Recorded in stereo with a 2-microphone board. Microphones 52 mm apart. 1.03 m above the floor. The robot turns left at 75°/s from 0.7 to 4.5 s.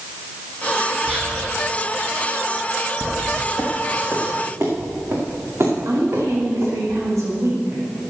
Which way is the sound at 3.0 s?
20° right (ahead or behind).